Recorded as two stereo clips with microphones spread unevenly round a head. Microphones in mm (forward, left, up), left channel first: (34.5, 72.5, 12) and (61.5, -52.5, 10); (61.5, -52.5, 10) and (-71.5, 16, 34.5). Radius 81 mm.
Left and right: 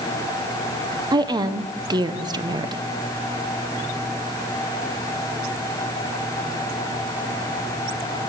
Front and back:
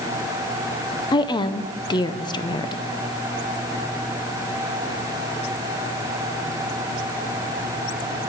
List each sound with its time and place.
1.1 s a woman speaking: 45° right, 0.7 m